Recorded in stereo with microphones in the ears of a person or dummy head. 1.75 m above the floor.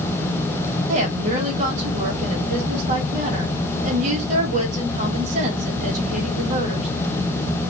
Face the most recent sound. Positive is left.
turn(degrees=-45)  # may be behind; listen again after turning